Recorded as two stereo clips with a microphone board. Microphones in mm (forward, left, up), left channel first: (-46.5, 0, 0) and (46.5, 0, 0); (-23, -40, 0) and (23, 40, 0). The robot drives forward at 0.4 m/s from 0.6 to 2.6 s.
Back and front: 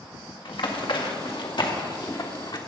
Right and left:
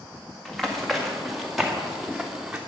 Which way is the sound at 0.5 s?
155° left.